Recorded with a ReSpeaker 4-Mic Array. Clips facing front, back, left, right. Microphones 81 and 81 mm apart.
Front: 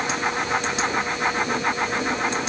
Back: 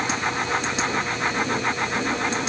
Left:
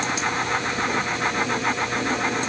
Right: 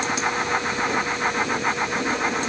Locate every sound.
Only background noise.